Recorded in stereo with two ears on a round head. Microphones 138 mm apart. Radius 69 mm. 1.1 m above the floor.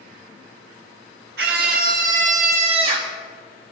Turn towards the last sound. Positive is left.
turn(degrees=-30)  # may be behind; listen again after turning